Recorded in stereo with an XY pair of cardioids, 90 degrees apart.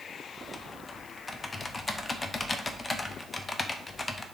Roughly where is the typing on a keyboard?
Ahead left.